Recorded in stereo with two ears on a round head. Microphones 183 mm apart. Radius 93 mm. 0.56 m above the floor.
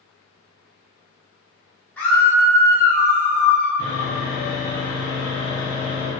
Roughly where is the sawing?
Left.